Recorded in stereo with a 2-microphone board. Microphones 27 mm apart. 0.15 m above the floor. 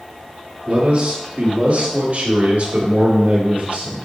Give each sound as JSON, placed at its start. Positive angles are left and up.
{"t": 0.7, "sound": "a man speaking", "side_deg": -50, "distance_m": 2.5}